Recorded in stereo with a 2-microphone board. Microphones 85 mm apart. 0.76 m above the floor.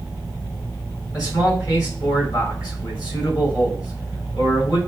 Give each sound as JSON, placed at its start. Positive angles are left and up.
{"t": 1.1, "sound": "a man speaking", "side_deg": 45, "distance_m": 3.5}